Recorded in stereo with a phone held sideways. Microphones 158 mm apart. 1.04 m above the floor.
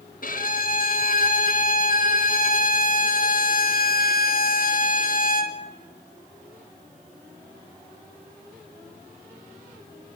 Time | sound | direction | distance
0.2 | a violin | 60° left (ahead or behind) | 1.4 m